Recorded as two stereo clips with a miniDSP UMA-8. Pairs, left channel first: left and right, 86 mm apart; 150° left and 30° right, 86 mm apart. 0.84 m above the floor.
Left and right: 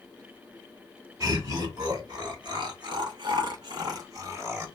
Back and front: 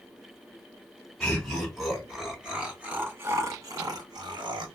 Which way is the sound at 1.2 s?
125° right.